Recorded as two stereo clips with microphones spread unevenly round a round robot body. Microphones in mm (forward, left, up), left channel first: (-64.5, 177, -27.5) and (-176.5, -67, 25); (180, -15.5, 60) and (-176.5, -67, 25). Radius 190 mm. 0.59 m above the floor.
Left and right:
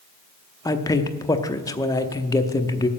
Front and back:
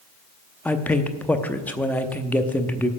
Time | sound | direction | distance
0.7 | a man speaking | 100° left | 0.7 m